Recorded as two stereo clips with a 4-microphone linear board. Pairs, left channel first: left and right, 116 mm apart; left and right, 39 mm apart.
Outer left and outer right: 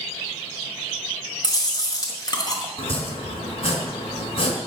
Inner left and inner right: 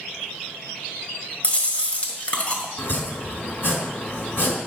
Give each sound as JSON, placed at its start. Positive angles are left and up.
{"t": 1.4, "sound": "chewing", "side_deg": 35, "distance_m": 1.6}
{"t": 2.8, "sound": "chopping", "side_deg": 55, "distance_m": 2.5}